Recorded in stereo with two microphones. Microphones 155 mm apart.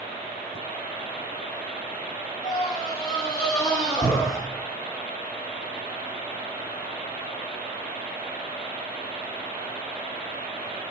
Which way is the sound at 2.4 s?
50° left (ahead or behind).